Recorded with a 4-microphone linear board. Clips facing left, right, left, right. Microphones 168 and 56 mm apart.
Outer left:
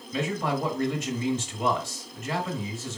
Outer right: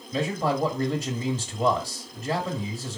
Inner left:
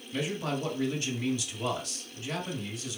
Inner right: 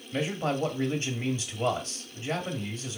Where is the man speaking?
35° right (ahead or behind), 1.3 m.